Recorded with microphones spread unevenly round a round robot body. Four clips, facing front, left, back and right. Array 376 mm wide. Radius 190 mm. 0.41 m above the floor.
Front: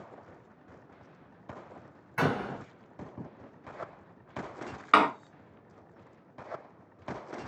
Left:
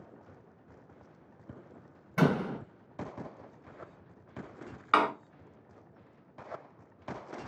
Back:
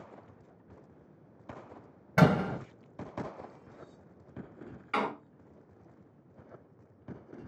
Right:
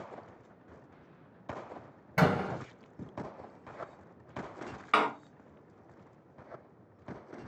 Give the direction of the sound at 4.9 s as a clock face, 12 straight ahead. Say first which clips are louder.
Left 2 dB, front 9 dB; 12 o'clock.